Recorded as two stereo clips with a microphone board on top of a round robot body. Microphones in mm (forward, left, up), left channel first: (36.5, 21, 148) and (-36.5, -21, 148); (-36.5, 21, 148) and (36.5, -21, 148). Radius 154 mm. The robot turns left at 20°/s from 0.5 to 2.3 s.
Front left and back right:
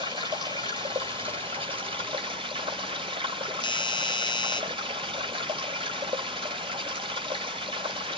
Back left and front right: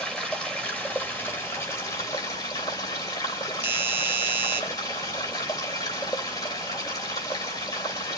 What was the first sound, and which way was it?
Running water, 130° right.